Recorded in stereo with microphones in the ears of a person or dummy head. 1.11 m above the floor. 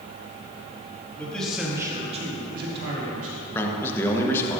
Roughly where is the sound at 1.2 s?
Centre.